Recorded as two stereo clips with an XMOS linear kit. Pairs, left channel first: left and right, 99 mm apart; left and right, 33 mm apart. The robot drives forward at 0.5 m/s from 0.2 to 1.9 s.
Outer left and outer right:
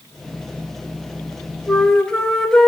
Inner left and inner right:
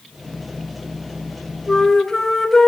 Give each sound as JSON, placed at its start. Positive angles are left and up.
{"t": 1.7, "sound": "a flute", "side_deg": 5, "distance_m": 5.0}